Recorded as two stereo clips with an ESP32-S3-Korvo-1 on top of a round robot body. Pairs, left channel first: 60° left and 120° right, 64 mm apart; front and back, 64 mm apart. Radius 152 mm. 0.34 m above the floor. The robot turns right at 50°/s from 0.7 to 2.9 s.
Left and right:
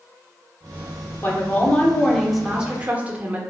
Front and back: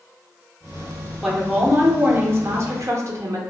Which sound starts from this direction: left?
A woman speaking, at 1.2 s.